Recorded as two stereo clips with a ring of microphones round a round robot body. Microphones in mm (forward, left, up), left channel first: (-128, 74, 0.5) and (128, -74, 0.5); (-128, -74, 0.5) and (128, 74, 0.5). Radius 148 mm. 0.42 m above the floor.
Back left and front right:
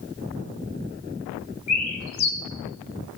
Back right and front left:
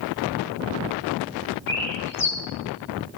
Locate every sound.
1.7 s a bird: 130° left, 1.0 m